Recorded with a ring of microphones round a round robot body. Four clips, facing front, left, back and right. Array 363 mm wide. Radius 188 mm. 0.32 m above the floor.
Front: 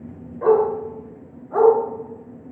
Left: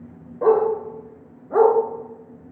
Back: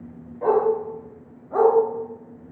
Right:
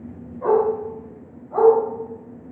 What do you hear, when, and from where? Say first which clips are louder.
0.4 s a dog barking: left 1 dB, front 2 dB; 70° left, 3 m; by 1.8 s 85° left, 1.9 m